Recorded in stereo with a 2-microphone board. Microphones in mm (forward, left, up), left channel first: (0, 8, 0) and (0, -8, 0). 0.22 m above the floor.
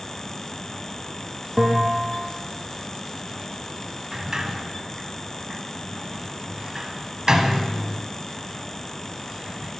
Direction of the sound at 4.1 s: 40° right (ahead or behind).